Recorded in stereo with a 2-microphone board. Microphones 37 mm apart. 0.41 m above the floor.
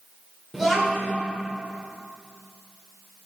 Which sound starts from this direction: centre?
A child speaking, at 0.5 s.